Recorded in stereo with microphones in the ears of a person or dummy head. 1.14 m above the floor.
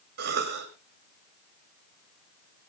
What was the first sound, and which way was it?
A cough, 60° right (ahead or behind).